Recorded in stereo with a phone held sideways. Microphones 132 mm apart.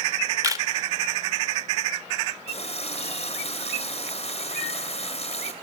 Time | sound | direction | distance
0.4 | a camera shutter | 25° right (ahead or behind) | 1.6 m
2.5 | a running tap | 50° left (ahead or behind) | 3.5 m